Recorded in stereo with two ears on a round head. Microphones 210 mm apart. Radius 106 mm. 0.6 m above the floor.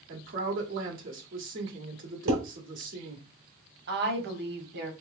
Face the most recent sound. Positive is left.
turn(degrees=-50)  # may be behind; listen again after turning